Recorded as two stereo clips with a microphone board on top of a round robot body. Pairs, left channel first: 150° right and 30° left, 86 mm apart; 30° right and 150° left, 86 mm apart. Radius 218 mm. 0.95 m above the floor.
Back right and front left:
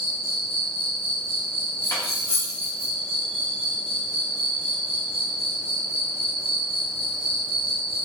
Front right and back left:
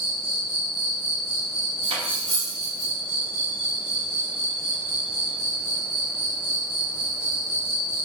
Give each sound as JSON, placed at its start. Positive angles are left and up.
{"t": 0.0, "sound": "an insect", "azimuth_deg": 65, "distance_m": 0.8}
{"t": 1.8, "sound": "cutlery clinking", "azimuth_deg": 150, "distance_m": 0.6}